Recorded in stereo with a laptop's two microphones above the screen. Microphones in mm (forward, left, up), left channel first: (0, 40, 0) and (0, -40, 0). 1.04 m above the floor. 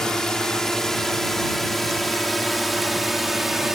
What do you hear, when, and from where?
0.0 s a drone: 10° left (ahead or behind); by 3.8 s 5° right (ahead or behind)